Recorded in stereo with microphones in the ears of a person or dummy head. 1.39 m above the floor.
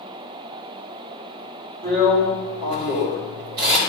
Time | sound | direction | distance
1.8 | a drill | 50° right (ahead or behind) | 3 m